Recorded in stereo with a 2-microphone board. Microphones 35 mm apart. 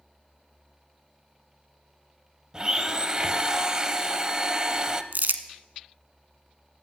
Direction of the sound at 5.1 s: 70° right (ahead or behind).